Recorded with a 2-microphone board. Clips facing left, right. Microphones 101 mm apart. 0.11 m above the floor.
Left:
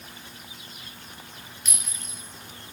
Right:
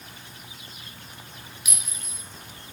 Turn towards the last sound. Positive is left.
turn(degrees=-10)  # may be behind; listen again after turning